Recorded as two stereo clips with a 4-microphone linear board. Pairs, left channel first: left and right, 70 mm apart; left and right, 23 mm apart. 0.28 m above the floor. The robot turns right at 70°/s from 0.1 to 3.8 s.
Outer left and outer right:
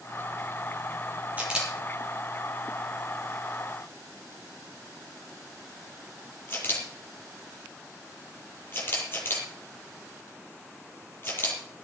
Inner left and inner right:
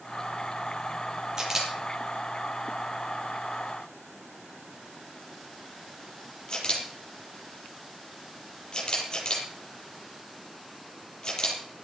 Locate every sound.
1.4 s a camera shutter: 25° right (ahead or behind), 5 m; by 11.6 s 35° left (ahead or behind), 5 m